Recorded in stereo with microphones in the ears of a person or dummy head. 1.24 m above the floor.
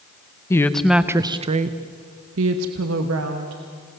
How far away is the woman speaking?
About 0.9 m.